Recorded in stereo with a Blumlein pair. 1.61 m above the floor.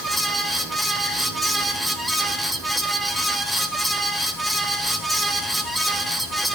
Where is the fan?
Straight ahead, 0.9 m.